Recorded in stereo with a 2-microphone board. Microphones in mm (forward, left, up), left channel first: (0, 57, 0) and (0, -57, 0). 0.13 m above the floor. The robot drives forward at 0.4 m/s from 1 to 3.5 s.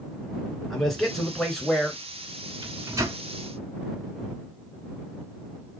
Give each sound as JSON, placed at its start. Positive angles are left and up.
{"t": 0.7, "sound": "a man speaking", "side_deg": 5, "distance_m": 2.0}
{"t": 2.6, "sound": "a microwave", "side_deg": -30, "distance_m": 0.9}